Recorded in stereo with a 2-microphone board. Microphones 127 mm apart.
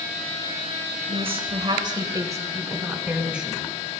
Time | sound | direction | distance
1.1 | a woman speaking | 50° right (ahead or behind) | 2 m